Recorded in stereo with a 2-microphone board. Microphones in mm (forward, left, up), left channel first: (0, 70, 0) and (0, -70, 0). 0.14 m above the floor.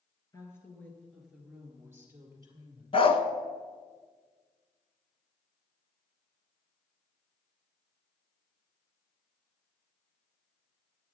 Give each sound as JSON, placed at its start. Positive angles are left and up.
{"t": 0.3, "sound": "a woman speaking", "side_deg": 20, "distance_m": 2.5}
{"t": 2.9, "sound": "a dog barking", "side_deg": 45, "distance_m": 0.6}